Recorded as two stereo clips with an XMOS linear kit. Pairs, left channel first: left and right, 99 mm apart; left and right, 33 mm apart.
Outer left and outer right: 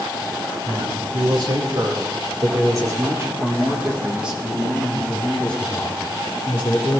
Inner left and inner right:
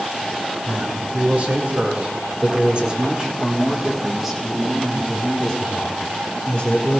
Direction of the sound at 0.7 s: 60° right (ahead or behind).